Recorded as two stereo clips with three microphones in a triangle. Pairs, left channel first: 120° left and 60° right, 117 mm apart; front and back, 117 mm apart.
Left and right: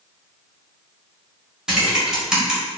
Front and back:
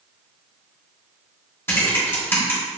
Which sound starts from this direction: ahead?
Typing on a keyboard, at 1.7 s.